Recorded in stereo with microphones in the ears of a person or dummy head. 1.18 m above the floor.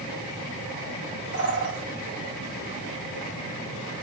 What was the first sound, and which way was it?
A bird, 55° right (ahead or behind).